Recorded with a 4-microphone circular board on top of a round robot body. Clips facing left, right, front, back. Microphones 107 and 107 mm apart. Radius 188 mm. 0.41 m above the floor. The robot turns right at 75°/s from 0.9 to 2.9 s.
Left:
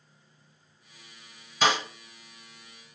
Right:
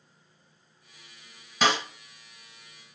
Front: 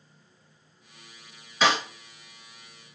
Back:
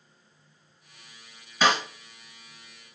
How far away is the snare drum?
About 1.6 m.